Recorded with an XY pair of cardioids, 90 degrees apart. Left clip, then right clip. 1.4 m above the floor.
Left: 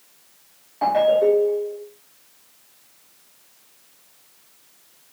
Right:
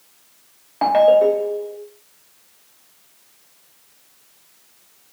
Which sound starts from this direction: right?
A ringtone, at 0.8 s.